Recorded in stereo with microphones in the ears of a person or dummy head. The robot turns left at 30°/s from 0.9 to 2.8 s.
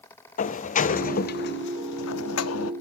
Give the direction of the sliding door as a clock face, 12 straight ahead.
8 o'clock.